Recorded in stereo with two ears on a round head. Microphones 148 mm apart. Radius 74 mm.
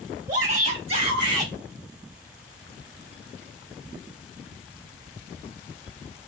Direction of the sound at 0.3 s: 50° right (ahead or behind).